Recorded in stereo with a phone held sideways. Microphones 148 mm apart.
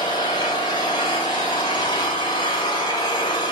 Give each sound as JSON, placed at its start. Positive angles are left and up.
{"t": 0.0, "sound": "an engine running", "side_deg": 35, "distance_m": 4.5}